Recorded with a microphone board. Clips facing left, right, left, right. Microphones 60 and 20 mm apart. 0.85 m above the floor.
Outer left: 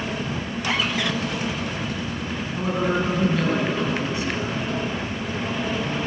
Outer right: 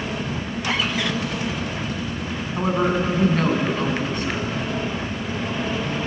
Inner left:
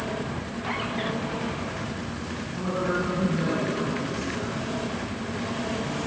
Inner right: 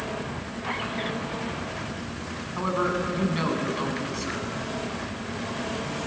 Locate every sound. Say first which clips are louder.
2.6 s a man speaking: outer right 3 dB, inner right 1 dB; 50° right (ahead or behind), 6 m